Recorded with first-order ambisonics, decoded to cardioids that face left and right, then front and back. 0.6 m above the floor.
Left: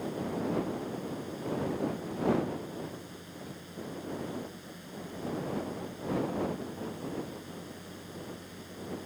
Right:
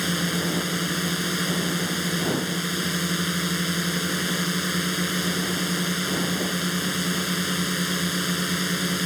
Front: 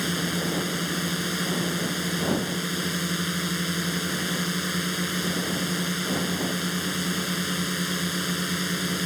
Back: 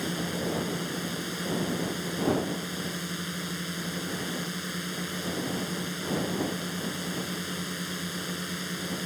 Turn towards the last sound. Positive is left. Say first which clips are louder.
# right 9 dB, front 4 dB
turn(degrees=-65)